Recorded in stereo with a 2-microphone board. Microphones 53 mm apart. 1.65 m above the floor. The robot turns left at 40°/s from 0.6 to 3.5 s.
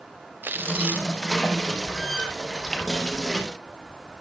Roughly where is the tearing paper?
Right.